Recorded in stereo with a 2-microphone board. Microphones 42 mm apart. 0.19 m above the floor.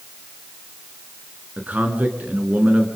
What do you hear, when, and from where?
1.6 s a man speaking: 40° right (ahead or behind), 2.5 m